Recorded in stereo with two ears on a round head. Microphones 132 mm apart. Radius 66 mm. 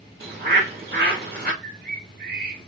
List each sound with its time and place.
0.2 s a bird: 80° right, 2 m
1.6 s a bird: 70° right (ahead or behind), 1.3 m